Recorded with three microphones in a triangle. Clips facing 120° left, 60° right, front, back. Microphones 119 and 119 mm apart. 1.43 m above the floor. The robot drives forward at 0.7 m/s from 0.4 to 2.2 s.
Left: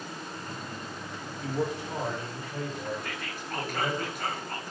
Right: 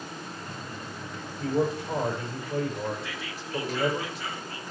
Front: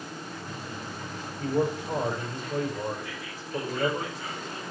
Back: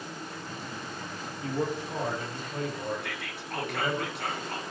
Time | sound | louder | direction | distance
1.4 | a man speaking | right 5 dB, front 4 dB | 25° right | 7 m
3.0 | whispering | even, even | 160° left | 1.5 m